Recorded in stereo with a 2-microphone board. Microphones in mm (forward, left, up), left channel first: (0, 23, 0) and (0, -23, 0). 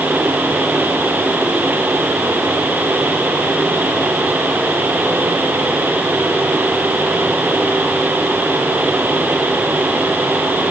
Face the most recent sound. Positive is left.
No sound to turn to.